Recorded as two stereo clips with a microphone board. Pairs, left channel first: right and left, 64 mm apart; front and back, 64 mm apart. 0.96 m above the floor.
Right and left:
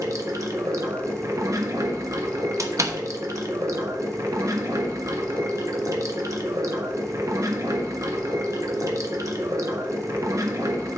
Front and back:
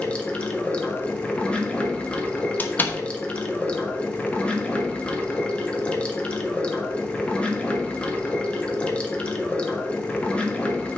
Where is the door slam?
60° left, 1.0 m.